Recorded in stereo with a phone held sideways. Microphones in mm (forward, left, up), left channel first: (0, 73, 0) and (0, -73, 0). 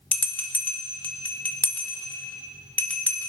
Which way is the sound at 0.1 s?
10° left (ahead or behind).